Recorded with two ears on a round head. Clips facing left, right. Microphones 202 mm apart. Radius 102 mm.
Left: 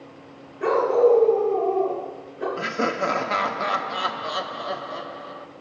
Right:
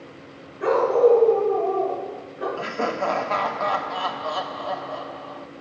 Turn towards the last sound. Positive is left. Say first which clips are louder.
# left 1 dB
turn(degrees=20)  # may be behind; listen again after turning